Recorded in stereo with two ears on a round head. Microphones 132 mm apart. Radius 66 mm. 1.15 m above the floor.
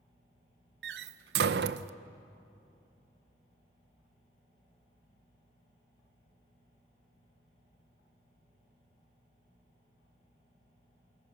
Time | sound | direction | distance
0.8 | a door slam | 80° right | 0.5 m